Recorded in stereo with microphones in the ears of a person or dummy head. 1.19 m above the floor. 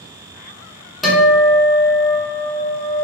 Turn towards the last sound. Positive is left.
turn(degrees=0)  # may be behind; listen again after turning